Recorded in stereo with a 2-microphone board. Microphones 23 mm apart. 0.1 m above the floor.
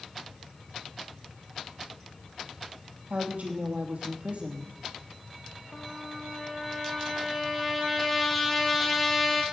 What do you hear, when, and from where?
3.1 s a woman speaking: 65° right (ahead or behind), 3 m
5.7 s a trumpet: 5° right (ahead or behind), 2 m